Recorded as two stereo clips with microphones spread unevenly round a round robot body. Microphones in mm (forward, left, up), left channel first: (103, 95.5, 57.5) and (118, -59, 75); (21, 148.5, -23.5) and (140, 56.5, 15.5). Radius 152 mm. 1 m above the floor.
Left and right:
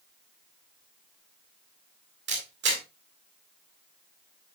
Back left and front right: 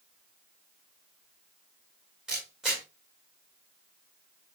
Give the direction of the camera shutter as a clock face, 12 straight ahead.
4 o'clock.